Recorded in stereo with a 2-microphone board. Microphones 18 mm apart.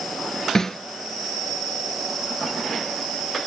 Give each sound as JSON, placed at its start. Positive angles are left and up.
{"t": 0.6, "sound": "a snare drum", "side_deg": 30, "distance_m": 0.8}